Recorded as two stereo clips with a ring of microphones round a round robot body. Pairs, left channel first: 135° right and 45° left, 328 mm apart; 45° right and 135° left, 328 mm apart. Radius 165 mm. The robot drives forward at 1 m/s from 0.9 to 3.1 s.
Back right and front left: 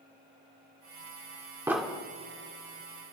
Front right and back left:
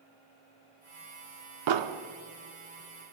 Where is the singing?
No singing in this recording.